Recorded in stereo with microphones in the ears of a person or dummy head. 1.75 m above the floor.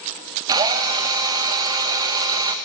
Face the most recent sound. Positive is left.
turn(degrees=-20)  # may be behind; listen again after turning